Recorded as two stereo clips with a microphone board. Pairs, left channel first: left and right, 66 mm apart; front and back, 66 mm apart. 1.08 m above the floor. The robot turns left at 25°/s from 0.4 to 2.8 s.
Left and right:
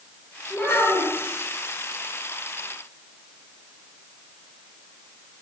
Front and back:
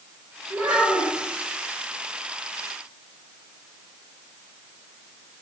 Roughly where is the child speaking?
Behind.